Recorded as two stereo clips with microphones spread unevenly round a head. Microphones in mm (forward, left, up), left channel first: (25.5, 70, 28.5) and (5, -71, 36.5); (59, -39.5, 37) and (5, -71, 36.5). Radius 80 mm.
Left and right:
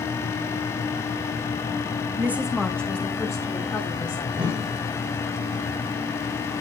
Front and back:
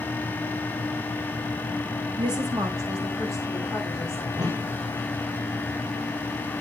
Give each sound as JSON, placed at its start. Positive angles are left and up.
{"t": 2.2, "sound": "a woman speaking", "azimuth_deg": -170, "distance_m": 1.0}
{"t": 4.3, "sound": "a whoosh", "azimuth_deg": -160, "distance_m": 1.6}